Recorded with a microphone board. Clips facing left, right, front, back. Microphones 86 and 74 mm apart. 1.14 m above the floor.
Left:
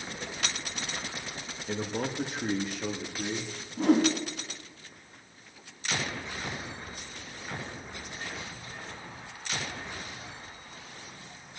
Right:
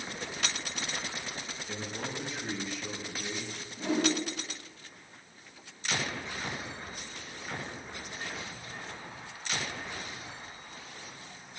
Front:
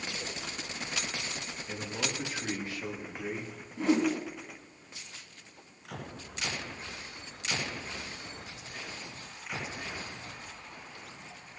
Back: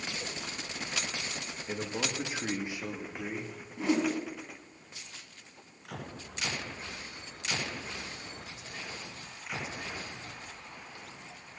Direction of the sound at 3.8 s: 90° left.